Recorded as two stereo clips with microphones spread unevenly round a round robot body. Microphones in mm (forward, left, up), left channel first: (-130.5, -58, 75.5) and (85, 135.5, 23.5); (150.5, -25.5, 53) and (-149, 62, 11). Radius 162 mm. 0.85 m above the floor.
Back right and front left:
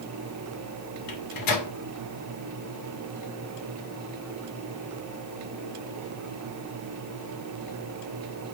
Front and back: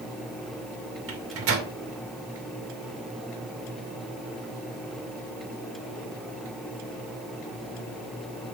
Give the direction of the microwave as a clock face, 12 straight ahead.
5 o'clock.